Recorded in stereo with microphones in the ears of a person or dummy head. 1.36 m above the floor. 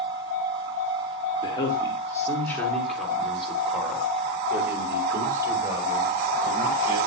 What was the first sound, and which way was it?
A man speaking, 30° left (ahead or behind).